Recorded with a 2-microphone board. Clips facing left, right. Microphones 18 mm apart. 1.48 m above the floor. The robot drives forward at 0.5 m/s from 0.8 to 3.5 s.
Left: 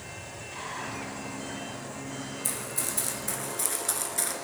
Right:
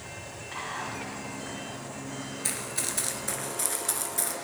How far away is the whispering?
About 2 m.